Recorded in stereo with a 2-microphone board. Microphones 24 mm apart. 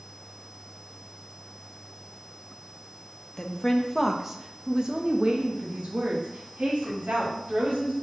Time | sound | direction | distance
3.4 | a woman speaking | 25° left (ahead or behind) | 1.0 m